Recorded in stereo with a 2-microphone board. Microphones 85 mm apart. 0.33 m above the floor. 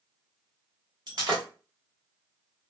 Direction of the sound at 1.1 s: 60° right (ahead or behind).